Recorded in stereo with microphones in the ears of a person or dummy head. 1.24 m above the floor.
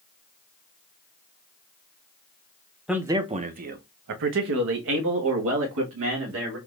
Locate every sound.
2.9 s a man speaking: 5° right (ahead or behind), 0.7 m; by 6.6 s 75° right (ahead or behind), 2 m